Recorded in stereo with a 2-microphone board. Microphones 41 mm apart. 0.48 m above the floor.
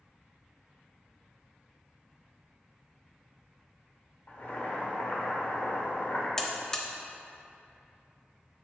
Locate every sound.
4.3 s boiling: 45° left (ahead or behind), 1.2 m
6.4 s a buzzer: 15° left (ahead or behind), 0.7 m